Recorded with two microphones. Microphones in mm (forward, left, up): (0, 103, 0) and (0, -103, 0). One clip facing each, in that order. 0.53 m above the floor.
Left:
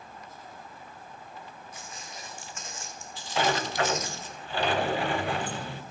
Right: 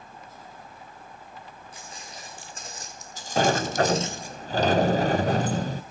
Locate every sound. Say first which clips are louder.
1.7 s footsteps: right 1 dB; 30° right (ahead or behind), 3 m; by 4.3 s 10° right (ahead or behind), 1.0 m
3.4 s a sliding door: right 5 dB; 45° right (ahead or behind), 0.5 m